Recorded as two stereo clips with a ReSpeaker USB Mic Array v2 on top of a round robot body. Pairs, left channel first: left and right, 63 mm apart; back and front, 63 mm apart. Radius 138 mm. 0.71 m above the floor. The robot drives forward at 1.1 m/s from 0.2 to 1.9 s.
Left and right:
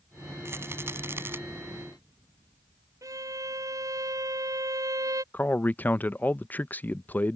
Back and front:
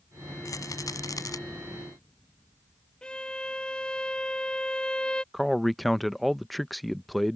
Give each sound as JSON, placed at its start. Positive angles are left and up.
{"t": 0.5, "sound": "a rattle", "azimuth_deg": -140}
{"t": 3.0, "sound": "a violin", "azimuth_deg": -105}
{"t": 5.3, "sound": "a man speaking", "azimuth_deg": 95}